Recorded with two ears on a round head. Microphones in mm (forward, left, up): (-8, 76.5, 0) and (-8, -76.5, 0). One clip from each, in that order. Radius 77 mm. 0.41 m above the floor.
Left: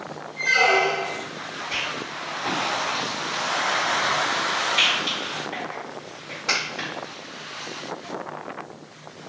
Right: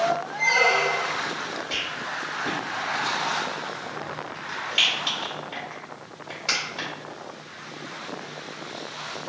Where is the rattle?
20° right (ahead or behind), 1.6 m.